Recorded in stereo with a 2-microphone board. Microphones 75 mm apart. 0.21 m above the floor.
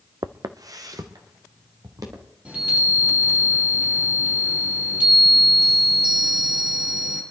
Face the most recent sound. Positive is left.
turn(degrees=-15)  # may be behind; listen again after turning